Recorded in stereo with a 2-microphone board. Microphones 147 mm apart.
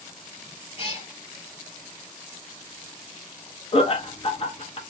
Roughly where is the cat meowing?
Left.